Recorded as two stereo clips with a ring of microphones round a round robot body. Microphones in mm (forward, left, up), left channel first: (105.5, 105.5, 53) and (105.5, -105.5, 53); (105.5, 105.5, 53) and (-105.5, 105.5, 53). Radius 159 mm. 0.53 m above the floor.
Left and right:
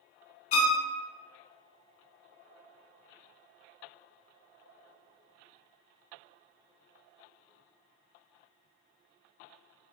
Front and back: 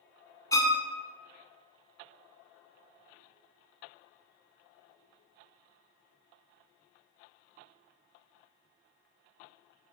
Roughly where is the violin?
Left.